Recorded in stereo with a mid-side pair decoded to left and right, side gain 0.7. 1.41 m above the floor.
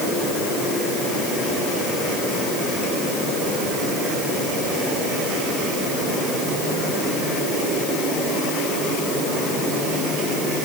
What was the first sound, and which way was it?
Only background noise.